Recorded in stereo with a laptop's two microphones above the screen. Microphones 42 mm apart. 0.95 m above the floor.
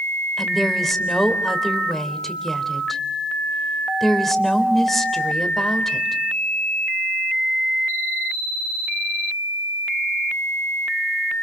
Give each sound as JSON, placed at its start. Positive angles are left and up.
{"t": 0.4, "sound": "a woman speaking", "side_deg": 5, "distance_m": 3.5}